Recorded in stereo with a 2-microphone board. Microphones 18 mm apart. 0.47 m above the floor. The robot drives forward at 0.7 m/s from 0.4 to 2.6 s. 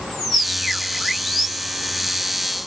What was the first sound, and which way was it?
Only background noise.